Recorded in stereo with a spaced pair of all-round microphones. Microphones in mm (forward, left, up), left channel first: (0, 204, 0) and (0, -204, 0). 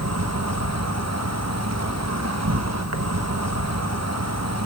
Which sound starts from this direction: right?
An insect, at 0.0 s.